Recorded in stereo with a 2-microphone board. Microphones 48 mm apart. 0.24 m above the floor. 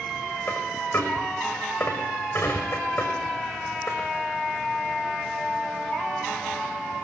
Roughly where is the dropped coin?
Left.